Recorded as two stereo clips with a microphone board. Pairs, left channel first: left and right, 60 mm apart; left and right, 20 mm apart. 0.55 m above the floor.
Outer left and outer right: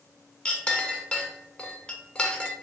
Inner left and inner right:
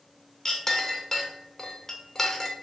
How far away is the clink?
About 0.7 m.